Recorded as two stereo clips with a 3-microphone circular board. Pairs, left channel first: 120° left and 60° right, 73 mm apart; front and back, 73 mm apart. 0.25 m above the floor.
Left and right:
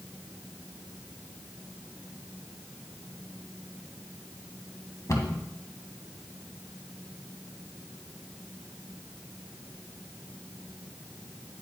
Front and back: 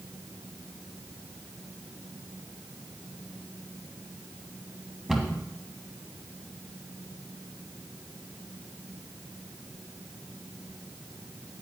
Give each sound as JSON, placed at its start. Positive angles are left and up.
{"t": 5.1, "sound": "a cupboard door", "azimuth_deg": 100, "distance_m": 1.7}